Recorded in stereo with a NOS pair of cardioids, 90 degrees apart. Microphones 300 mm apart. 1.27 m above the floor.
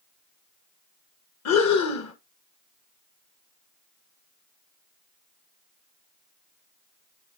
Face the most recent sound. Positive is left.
turn(degrees=60)